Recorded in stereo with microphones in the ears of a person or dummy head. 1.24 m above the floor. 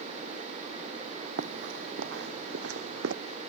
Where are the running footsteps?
55° right (ahead or behind); by 3.1 s 65° right (ahead or behind).